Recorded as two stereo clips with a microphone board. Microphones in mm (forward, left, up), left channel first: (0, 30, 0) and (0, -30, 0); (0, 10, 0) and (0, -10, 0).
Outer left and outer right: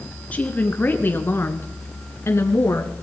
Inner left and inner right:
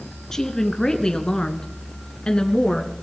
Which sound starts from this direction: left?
A woman speaking, at 0.3 s.